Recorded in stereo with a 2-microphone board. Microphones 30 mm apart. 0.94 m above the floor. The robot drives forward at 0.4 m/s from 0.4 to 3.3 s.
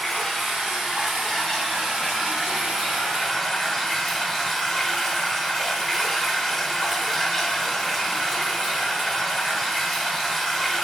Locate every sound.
0.0 s running water: centre (ahead or behind), 1.3 m